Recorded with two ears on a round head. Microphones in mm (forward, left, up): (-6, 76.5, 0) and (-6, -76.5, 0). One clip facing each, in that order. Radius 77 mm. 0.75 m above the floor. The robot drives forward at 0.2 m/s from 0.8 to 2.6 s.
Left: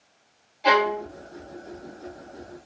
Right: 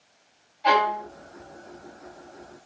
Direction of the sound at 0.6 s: 50° left (ahead or behind).